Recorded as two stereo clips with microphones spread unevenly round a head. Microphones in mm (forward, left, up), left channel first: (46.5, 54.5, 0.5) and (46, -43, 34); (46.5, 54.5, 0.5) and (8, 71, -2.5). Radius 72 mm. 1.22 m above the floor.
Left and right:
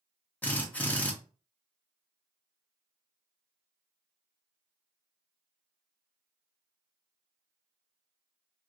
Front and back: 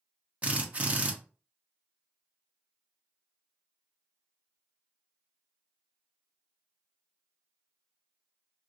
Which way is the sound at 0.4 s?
130° left.